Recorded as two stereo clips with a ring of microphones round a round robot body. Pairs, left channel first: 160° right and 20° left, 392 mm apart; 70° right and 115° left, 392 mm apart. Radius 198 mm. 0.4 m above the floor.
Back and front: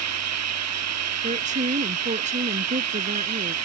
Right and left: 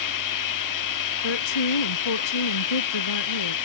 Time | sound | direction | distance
0.0 | running water | 25° right | ?
1.2 | a woman speaking | 50° right | ?